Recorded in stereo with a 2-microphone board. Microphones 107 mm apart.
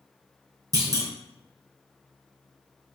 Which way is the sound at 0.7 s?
30° right (ahead or behind).